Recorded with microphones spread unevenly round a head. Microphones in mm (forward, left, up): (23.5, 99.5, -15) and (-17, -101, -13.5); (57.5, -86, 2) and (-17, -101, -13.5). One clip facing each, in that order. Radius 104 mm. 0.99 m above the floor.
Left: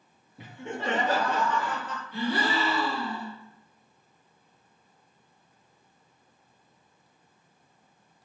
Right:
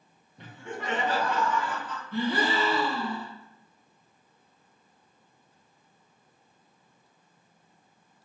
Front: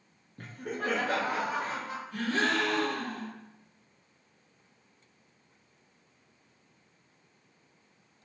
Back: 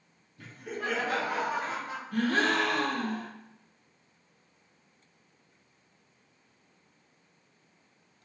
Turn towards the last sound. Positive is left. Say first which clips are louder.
# right 1 dB, back 3 dB
turn(degrees=-145)